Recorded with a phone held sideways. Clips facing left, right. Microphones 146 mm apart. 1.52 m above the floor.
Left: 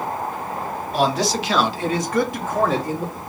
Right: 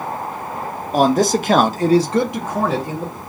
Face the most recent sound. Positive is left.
turn(degrees=0)  # may be behind; listen again after turning